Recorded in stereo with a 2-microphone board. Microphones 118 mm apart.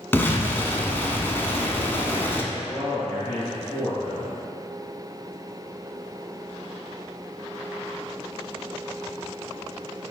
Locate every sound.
0.1 s an explosion: 20° left (ahead or behind), 0.5 m
2.5 s a man speaking: 20° left (ahead or behind), 1.7 m